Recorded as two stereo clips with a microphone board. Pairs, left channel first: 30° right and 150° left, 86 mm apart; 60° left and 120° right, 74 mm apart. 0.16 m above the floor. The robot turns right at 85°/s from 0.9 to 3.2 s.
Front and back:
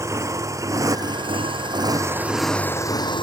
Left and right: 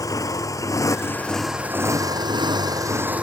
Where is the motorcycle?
95° left; by 3.2 s 50° right.